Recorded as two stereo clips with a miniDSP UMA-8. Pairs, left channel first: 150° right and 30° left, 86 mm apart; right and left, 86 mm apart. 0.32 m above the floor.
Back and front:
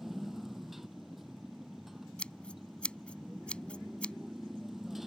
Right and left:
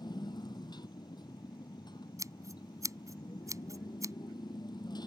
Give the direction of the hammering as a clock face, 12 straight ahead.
No hammering in this recording.